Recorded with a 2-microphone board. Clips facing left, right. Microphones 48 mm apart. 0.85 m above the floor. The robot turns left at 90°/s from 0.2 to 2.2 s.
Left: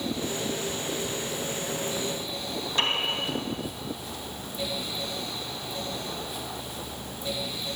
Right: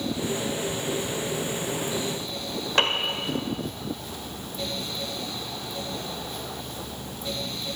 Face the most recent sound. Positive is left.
turn(degrees=-85)